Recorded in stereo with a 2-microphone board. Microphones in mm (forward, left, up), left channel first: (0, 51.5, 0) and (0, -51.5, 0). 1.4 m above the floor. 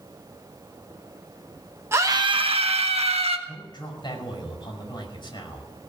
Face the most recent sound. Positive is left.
turn(degrees=45)  # may be behind; listen again after turning